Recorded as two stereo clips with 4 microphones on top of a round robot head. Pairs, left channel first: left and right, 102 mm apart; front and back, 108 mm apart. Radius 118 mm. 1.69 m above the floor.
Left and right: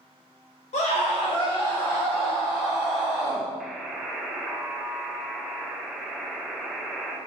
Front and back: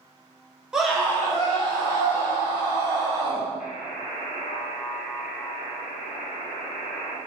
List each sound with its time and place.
0.7 s a scream: 100° left, 0.7 m; by 3.5 s 15° right, 1.7 m
3.6 s a buzzer: straight ahead, 0.5 m